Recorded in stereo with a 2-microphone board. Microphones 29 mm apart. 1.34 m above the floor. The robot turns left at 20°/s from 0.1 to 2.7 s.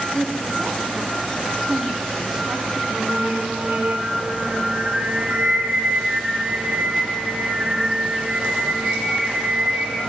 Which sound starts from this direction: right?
Singing, at 2.9 s.